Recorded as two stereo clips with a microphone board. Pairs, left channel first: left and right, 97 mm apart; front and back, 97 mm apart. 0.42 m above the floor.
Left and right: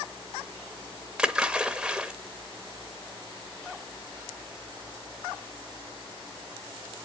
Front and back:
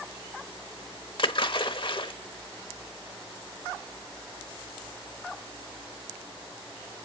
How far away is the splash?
About 0.9 m.